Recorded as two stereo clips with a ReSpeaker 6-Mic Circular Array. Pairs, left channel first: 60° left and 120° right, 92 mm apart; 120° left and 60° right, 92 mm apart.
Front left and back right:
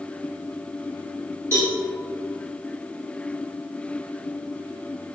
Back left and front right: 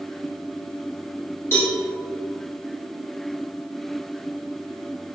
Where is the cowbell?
Straight behind, 1.2 m.